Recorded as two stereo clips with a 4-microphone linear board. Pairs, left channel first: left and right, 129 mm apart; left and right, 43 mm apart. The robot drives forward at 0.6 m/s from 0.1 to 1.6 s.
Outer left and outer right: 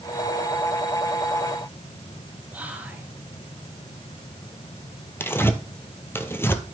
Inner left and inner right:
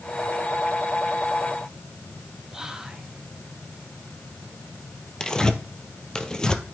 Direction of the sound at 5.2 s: 20° left (ahead or behind).